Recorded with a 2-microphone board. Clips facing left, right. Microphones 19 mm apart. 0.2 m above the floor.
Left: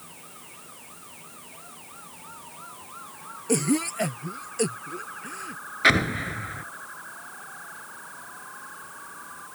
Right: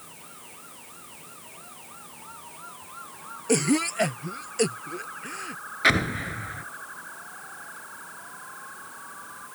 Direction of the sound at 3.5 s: 20° right (ahead or behind).